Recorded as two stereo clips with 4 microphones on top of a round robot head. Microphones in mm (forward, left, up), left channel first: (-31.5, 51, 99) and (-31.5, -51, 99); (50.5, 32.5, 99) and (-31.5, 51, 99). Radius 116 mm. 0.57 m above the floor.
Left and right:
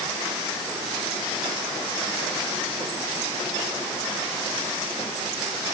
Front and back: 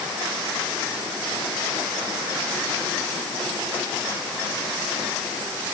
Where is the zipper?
No zipper in this recording.